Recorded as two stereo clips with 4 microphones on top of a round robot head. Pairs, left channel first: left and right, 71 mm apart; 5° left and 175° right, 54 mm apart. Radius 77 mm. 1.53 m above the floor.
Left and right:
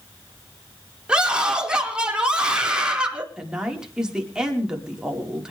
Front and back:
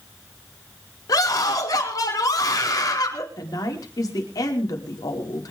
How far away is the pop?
I don't hear a pop.